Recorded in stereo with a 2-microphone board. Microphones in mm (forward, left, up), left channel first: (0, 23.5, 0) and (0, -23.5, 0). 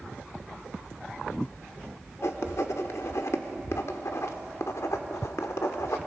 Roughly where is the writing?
Left.